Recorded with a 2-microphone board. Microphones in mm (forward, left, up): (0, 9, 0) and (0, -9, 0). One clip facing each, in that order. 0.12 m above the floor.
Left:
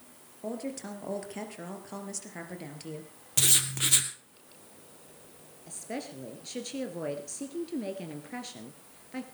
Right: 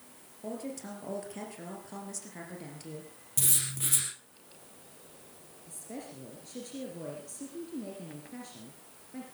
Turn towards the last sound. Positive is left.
turn(degrees=45)  # may be behind; listen again after turning